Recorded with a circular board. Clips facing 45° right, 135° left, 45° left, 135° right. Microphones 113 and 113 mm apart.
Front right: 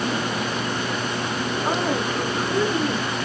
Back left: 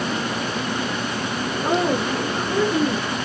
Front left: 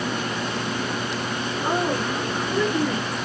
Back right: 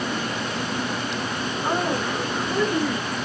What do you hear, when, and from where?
1.6 s a woman speaking: 120° left, 4 m; by 3.1 s 140° left, 4 m